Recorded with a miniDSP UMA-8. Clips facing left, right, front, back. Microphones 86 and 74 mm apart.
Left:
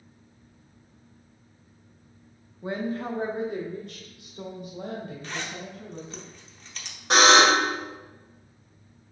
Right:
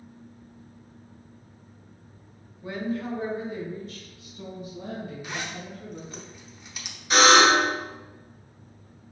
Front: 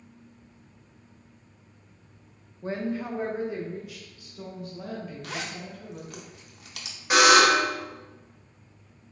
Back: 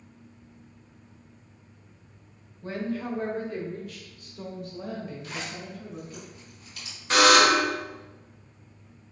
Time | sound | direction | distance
2.6 | a woman speaking | 45° left | 0.9 m
5.2 | a zipper | 10° right | 0.7 m
7.1 | a buzzer | 75° left | 2.0 m